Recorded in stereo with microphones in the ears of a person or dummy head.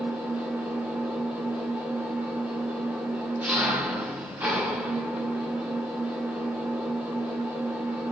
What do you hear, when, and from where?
0.0 s an engine running: 10° right (ahead or behind), 5 m